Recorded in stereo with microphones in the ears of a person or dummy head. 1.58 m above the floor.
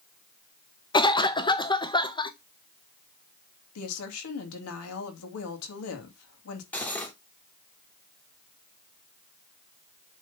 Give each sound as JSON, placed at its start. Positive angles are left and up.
{"t": 0.9, "sound": "a cough", "side_deg": 30, "distance_m": 0.8}
{"t": 3.8, "sound": "a woman speaking", "side_deg": 85, "distance_m": 2.5}
{"t": 6.7, "sound": "cutlery clinking", "side_deg": 5, "distance_m": 2.5}